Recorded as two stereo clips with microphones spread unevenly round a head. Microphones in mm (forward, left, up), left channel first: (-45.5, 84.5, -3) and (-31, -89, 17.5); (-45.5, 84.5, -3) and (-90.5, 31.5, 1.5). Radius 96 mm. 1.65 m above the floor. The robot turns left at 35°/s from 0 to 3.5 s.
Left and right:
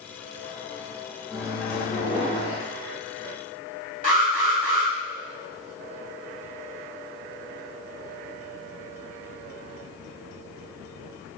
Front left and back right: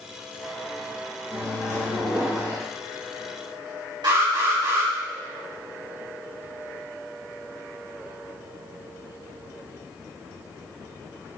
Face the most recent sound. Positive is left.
turn(degrees=-130)